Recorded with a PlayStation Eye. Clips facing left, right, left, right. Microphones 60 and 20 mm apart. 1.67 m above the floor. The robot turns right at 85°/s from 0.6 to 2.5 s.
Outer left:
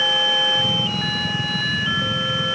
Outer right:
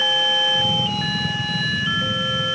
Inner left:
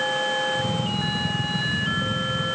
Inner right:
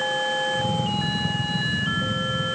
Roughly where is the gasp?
No gasp in this recording.